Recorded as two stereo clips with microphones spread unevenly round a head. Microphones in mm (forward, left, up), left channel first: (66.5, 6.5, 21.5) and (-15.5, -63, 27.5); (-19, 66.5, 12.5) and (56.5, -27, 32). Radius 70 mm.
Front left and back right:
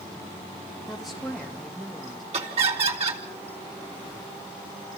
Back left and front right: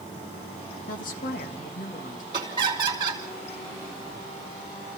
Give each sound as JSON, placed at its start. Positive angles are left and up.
{"t": 0.9, "sound": "a woman speaking", "azimuth_deg": 130, "distance_m": 2.0}
{"t": 2.3, "sound": "laughter", "azimuth_deg": -110, "distance_m": 4.0}